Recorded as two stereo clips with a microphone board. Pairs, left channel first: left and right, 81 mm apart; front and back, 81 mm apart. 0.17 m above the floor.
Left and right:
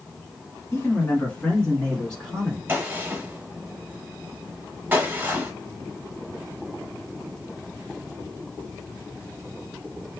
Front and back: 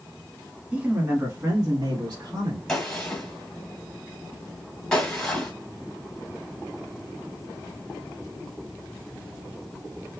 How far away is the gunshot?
About 1.6 m.